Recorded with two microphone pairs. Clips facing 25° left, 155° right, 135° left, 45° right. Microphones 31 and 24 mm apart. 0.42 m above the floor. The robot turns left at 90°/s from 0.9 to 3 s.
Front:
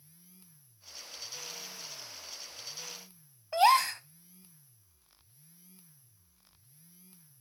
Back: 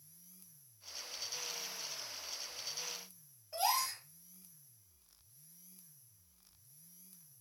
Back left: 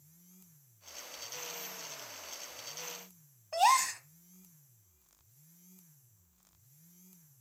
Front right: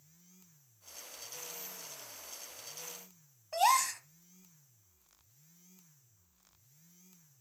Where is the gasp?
50° left, 0.7 m.